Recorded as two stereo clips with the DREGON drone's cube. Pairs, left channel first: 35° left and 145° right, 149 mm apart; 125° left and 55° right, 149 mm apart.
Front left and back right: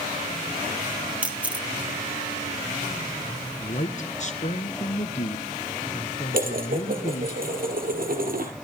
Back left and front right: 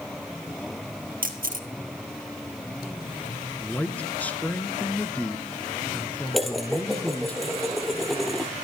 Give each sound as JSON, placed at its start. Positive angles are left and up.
{"t": 1.2, "sound": "a camera shutter", "azimuth_deg": -65, "distance_m": 2.0}
{"t": 3.6, "sound": "a man speaking", "azimuth_deg": 45, "distance_m": 2.0}
{"t": 6.3, "sound": "dishes clattering", "azimuth_deg": -145, "distance_m": 2.5}